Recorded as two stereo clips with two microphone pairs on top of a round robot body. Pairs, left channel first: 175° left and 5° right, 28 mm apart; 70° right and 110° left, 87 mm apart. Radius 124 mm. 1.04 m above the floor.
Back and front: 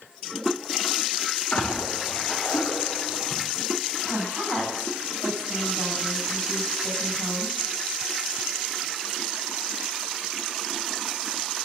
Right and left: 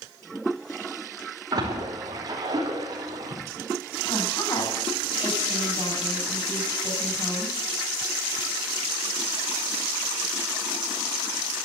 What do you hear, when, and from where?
1.5 s a splash: 160° left, 4.5 m
4.1 s a woman speaking: 115° right, 9.5 m